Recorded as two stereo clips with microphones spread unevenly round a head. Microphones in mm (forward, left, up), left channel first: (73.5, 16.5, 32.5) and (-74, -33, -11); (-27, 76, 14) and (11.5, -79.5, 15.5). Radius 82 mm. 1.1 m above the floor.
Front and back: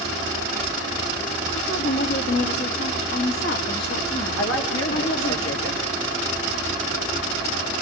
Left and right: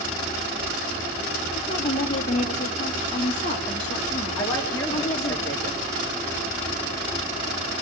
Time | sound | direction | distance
1.6 | a woman speaking | 50° left | 1.9 m
4.4 | a woman speaking | 30° left | 3 m